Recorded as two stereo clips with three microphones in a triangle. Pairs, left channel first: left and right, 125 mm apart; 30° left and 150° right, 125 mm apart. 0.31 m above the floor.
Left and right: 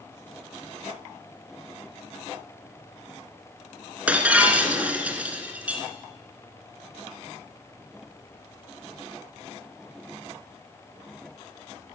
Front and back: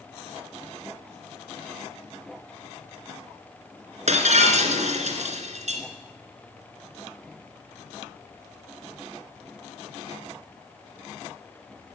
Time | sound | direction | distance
4.1 | breaking glass | 170° right | 1.9 m